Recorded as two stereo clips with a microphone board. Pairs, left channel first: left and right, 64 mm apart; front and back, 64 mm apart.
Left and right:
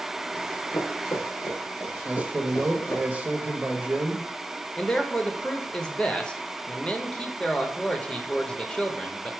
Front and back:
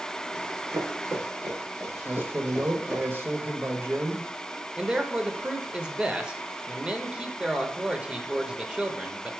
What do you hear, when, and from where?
0.3 s running footsteps: 130° left, 2.5 m; by 3.0 s 115° left, 3.5 m
2.0 s a man speaking: 145° right, 1.1 m
4.8 s a man speaking: 130° left, 0.8 m